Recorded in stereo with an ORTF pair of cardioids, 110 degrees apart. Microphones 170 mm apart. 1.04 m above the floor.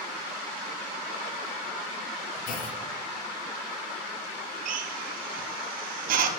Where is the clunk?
55° left, 1.3 m.